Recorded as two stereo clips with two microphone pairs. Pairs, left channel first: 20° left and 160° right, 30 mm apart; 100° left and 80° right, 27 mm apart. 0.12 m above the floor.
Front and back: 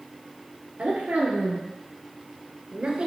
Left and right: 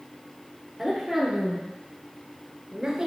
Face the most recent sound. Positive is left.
turn(degrees=-130)